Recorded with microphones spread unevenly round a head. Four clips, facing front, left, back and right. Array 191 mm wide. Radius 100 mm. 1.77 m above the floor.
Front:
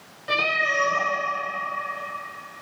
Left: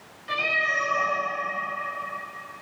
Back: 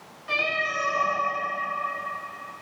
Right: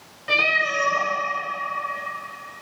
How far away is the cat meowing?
About 3 m.